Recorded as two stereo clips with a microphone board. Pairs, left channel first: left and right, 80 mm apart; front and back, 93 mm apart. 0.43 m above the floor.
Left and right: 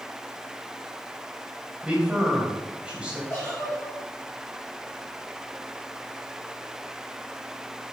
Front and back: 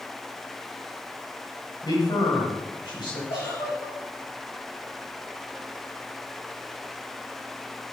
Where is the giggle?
25° left, 5.5 m.